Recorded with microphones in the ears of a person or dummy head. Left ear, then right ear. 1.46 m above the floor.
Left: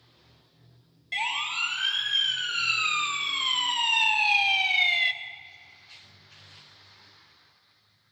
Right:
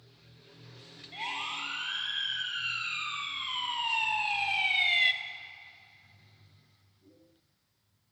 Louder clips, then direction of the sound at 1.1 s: Left 7 dB; 75° left (ahead or behind).